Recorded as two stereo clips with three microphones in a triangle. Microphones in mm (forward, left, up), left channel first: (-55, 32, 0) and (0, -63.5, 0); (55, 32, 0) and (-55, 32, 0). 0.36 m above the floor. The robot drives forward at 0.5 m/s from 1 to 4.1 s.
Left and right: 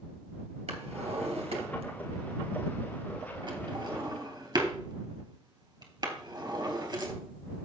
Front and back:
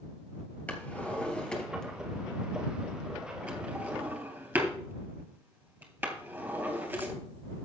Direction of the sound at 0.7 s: 75° right.